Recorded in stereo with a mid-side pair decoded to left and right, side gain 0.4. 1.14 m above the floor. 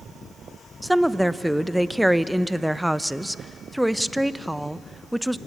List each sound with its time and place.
0.8 s a woman speaking: straight ahead, 0.8 m